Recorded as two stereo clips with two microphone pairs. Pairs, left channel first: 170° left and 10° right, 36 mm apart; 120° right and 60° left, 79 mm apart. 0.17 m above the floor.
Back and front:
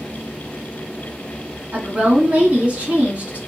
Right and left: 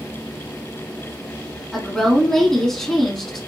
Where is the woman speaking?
40° right, 1.4 m.